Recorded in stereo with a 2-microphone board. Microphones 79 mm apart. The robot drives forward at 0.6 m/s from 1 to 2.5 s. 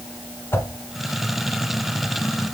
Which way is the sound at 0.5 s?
35° left (ahead or behind).